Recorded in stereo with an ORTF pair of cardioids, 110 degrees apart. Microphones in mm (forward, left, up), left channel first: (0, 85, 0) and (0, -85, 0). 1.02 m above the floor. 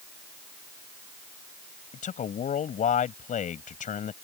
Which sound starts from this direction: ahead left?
A man speaking, at 1.9 s.